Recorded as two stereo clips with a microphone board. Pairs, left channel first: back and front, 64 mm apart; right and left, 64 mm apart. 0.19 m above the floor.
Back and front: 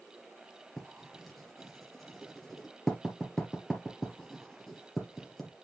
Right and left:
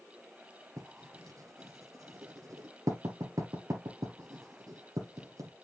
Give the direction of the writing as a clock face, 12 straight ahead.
9 o'clock.